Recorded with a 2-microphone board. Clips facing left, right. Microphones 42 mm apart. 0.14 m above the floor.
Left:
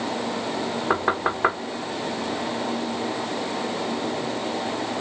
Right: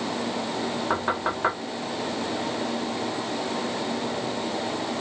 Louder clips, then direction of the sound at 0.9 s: Left 4 dB; 20° left (ahead or behind).